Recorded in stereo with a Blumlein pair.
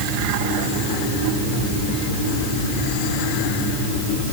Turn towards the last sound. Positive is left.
No sound to turn to.